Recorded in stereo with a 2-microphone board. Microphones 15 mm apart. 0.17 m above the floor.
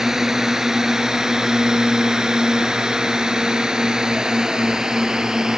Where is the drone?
35° right (ahead or behind); by 5.6 s 60° right (ahead or behind).